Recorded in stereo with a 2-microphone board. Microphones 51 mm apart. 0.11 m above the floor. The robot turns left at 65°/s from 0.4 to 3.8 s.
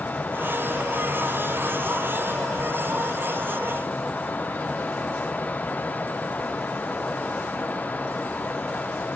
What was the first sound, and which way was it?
Only background noise.